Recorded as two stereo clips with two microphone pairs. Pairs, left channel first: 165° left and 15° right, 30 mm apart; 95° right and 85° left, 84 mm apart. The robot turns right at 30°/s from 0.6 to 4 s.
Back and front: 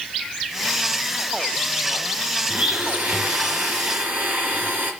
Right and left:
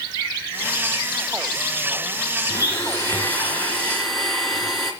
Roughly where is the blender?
Ahead right.